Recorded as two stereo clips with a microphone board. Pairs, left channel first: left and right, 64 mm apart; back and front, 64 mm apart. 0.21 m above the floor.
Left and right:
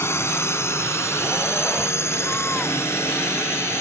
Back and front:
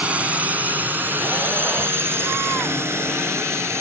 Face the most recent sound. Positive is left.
turn(degrees=40)